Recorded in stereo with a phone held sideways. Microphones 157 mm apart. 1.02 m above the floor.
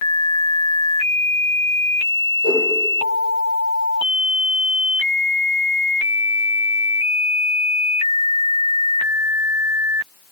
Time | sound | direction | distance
2.4 | a whoosh | 35° left (ahead or behind) | 9.5 m